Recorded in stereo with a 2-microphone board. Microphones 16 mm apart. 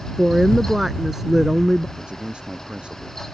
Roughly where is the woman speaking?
Right.